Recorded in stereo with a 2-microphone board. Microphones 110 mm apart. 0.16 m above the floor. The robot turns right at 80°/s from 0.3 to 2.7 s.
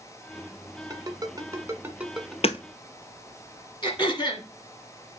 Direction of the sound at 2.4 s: 65° left (ahead or behind).